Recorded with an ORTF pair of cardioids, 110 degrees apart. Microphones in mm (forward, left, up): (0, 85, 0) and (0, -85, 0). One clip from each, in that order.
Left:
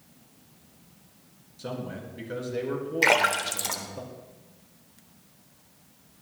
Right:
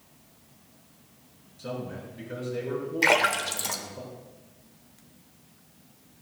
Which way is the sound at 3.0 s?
10° left.